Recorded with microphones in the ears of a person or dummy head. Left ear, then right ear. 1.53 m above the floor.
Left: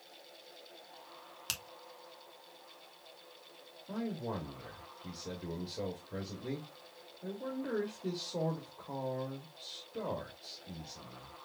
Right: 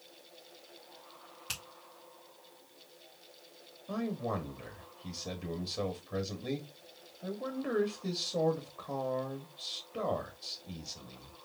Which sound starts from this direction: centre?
A man speaking, at 3.9 s.